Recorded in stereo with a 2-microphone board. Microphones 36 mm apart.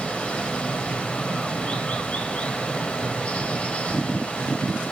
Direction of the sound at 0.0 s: 40° left (ahead or behind).